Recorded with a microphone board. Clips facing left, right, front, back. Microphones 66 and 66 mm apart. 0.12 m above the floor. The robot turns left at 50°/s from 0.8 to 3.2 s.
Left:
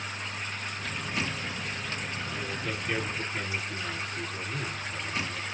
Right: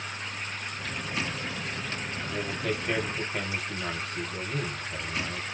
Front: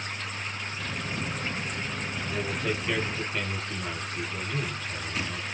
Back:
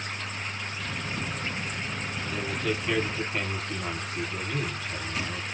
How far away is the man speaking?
About 3 m.